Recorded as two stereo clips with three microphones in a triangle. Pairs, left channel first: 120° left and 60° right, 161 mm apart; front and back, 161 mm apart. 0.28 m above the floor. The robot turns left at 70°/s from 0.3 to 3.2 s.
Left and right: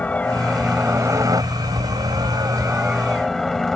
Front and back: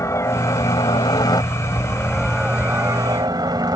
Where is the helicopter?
50° left; by 3.8 s 155° right.